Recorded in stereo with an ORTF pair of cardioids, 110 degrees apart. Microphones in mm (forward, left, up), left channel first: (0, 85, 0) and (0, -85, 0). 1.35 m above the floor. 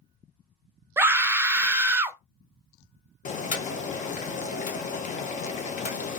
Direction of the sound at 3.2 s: 45° left.